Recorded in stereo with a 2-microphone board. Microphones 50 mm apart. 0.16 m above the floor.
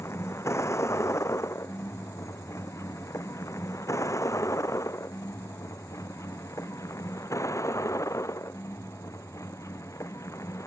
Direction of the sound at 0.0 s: 65° left (ahead or behind).